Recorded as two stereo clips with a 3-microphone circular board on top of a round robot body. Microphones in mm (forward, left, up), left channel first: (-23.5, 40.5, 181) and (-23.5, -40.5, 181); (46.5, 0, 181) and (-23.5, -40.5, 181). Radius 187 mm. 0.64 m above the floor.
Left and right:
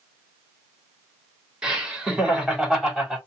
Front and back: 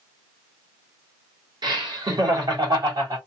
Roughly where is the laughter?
Behind.